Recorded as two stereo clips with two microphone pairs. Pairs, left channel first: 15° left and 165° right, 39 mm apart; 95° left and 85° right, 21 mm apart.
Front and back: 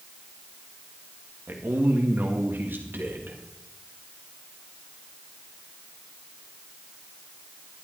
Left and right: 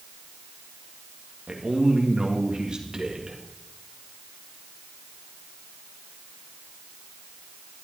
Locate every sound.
1.5 s a man speaking: 140° right, 2.0 m